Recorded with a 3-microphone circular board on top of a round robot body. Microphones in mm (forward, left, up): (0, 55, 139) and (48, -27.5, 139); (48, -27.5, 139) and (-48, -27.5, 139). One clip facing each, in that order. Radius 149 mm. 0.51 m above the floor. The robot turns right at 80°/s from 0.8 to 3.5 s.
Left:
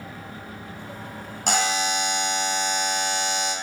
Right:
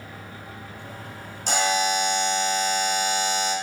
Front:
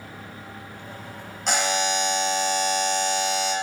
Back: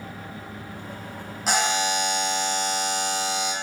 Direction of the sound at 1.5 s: 95° left.